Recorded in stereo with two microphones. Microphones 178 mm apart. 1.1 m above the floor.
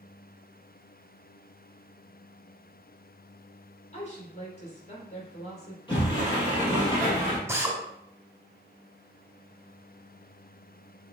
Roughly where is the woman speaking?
Left.